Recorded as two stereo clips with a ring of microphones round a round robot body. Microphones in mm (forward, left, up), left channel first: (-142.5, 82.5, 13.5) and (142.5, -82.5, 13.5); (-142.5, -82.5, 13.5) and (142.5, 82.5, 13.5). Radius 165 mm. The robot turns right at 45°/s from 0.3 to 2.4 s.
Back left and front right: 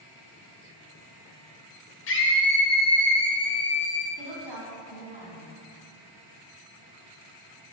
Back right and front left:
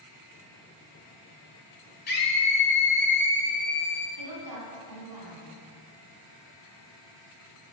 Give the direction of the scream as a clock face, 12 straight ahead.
6 o'clock.